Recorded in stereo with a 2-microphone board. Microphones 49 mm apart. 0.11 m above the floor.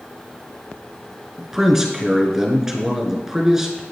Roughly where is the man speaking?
Centre.